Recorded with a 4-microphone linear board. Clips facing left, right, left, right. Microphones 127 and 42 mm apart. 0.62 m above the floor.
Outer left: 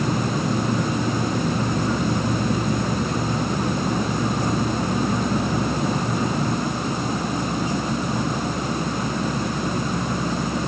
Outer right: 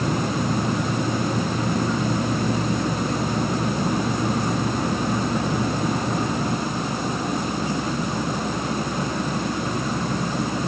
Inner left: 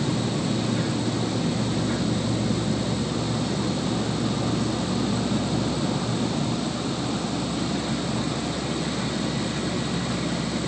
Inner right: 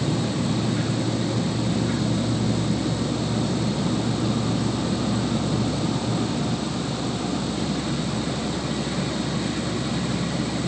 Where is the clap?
I don't hear a clap.